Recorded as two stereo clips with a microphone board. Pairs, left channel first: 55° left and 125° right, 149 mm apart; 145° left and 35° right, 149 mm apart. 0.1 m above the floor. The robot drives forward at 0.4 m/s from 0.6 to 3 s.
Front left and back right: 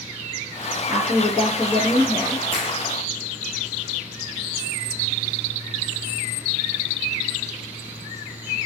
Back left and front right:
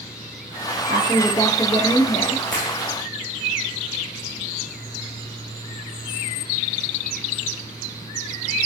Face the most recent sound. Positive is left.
turn(degrees=90)